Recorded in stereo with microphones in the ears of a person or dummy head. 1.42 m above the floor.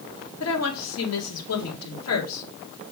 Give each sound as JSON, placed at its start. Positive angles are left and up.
{"t": 0.4, "sound": "a woman speaking", "side_deg": 80, "distance_m": 2.0}